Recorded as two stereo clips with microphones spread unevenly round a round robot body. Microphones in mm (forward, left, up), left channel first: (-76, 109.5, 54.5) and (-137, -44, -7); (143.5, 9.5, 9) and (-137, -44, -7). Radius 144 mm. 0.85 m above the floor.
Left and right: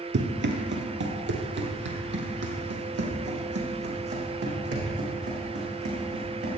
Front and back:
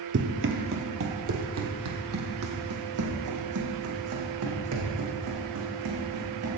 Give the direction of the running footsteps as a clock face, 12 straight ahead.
4 o'clock.